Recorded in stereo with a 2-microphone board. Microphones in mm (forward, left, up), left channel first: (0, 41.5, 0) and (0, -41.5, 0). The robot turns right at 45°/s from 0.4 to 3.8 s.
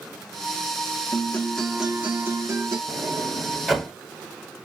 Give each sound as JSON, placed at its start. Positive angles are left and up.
{"t": 1.1, "sound": "a guitar", "azimuth_deg": 155, "distance_m": 1.1}
{"t": 2.9, "sound": "a sliding door", "side_deg": -35, "distance_m": 1.0}